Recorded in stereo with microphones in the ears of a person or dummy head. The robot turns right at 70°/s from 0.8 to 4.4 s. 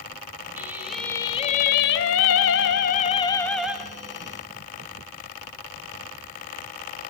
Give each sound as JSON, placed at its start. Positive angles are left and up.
{"t": 0.6, "sound": "singing", "azimuth_deg": -10, "distance_m": 3.0}